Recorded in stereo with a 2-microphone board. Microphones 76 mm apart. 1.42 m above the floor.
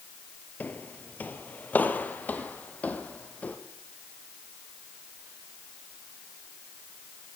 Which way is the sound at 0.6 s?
20° left (ahead or behind).